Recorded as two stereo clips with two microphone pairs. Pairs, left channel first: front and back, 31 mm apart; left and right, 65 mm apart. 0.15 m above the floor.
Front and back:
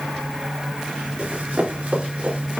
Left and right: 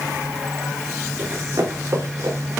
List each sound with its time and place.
1.2 s running footsteps: 145° right, 5 m; by 2.6 s 135° right, 5 m